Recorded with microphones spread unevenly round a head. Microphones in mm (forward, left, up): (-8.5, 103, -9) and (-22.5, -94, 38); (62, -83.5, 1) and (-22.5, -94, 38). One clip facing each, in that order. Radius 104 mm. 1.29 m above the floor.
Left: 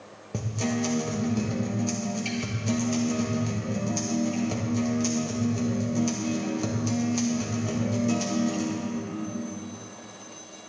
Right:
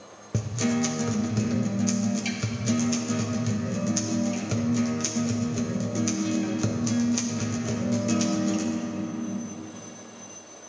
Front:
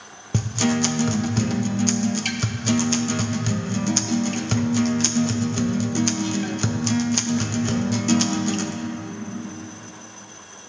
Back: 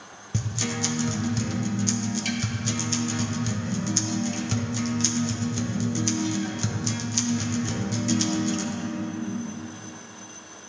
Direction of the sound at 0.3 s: 25° right.